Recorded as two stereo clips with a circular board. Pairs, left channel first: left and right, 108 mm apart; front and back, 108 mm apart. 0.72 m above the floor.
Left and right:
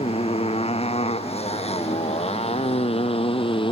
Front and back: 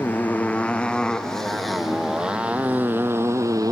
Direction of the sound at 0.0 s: 75° left.